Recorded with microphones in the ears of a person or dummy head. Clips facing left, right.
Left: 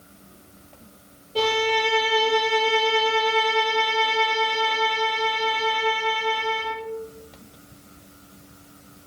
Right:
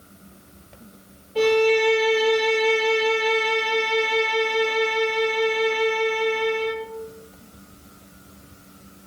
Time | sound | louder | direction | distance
1.4 | a violin | right 6 dB | 50° left (ahead or behind) | 4.5 m